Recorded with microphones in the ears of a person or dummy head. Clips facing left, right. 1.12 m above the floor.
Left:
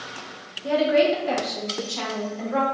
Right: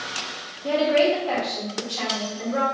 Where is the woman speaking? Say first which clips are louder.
Even; 5° right (ahead or behind), 0.6 m; by 2.6 s 60° left (ahead or behind), 1.1 m.